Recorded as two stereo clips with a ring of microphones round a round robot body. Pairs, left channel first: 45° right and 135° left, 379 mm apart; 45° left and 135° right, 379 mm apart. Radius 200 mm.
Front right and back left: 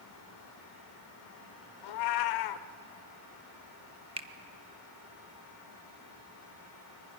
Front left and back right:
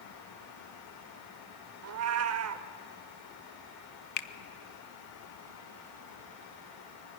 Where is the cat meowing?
80° right, 0.6 m.